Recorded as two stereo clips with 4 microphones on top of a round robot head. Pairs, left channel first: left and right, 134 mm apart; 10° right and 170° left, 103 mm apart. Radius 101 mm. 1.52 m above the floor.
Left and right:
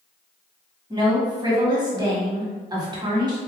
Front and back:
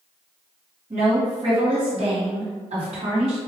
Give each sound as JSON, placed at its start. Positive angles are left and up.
{"t": 0.9, "sound": "a woman speaking", "azimuth_deg": -150, "distance_m": 1.6}